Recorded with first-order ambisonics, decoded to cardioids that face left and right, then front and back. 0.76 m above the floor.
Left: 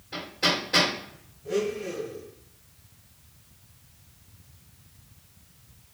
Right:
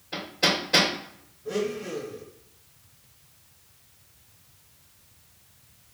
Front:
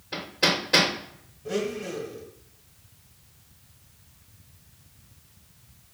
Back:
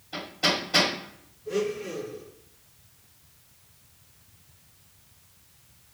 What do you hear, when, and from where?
0.1 s hammering: 5° right, 2 m
1.4 s a blender: 5° left, 1.6 m